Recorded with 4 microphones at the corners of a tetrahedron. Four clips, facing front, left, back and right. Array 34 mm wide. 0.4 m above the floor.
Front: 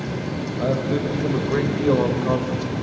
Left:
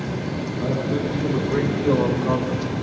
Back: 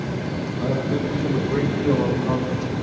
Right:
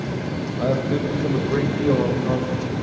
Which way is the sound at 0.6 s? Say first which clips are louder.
Right 3 dB, front 2 dB; 55° right.